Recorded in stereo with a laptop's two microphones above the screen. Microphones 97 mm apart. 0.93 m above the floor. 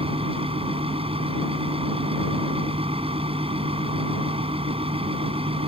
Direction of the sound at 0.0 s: 75° right (ahead or behind).